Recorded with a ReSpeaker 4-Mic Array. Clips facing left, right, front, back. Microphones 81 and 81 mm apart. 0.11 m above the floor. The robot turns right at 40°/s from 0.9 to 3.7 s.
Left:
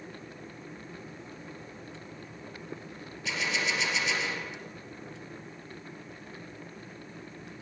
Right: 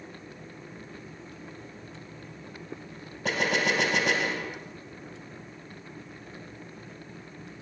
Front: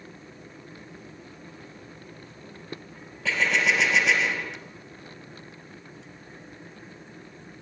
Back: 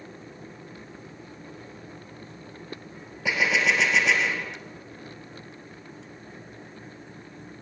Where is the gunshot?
110° right, 2.5 m; by 4.6 s 90° right, 2.5 m.